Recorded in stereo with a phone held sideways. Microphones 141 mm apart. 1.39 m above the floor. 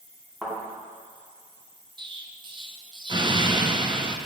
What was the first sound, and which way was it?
A thud, centre (ahead or behind).